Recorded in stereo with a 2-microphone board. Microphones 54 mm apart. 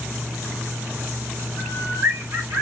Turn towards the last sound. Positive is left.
turn(degrees=-60)  # may be behind; listen again after turning